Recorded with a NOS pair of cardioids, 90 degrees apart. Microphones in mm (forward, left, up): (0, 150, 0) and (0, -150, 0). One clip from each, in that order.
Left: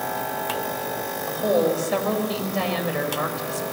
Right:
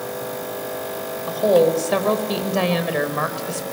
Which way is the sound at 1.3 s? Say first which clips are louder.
Right 5 dB; 40° right.